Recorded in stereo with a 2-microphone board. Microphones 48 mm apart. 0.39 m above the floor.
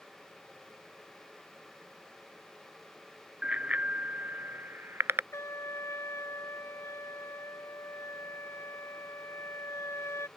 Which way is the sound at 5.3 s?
80° left.